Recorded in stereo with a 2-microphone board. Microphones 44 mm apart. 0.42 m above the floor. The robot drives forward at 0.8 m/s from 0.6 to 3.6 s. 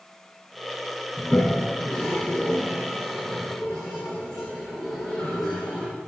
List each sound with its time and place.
1.2 s a toilet flushing: 20° left (ahead or behind), 1.6 m; by 5.9 s 10° left (ahead or behind), 3.5 m